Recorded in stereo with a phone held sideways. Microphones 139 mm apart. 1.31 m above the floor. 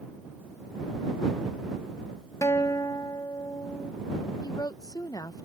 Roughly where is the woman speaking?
Left.